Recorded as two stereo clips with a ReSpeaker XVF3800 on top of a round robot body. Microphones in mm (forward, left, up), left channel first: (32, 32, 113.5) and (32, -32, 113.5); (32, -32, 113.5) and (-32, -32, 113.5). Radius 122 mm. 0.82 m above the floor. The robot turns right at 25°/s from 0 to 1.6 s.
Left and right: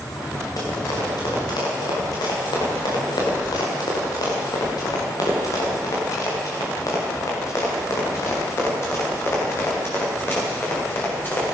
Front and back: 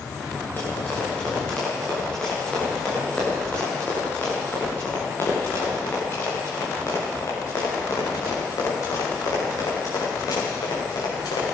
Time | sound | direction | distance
0.6 | running footsteps | 60° left | 10 m